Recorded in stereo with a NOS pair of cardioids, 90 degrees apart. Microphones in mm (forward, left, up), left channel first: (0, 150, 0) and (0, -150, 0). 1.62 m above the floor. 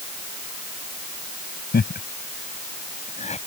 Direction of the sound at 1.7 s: 30° left.